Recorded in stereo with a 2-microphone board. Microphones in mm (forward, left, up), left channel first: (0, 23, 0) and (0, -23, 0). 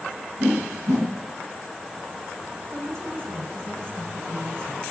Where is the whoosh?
65° right (ahead or behind), 6 m.